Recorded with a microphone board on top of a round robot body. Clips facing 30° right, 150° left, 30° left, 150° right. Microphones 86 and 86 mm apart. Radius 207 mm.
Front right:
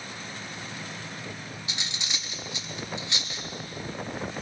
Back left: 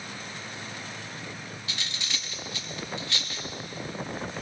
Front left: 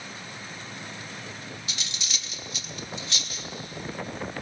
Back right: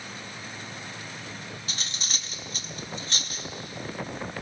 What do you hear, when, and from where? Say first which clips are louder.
1.7 s cutlery clinking: even, back right 1 dB; 100° right, 1.1 m